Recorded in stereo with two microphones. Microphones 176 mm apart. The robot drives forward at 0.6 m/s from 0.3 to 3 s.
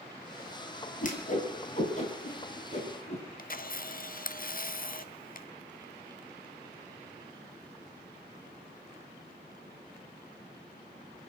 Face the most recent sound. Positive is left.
turn(degrees=55)  # may be behind; listen again after turning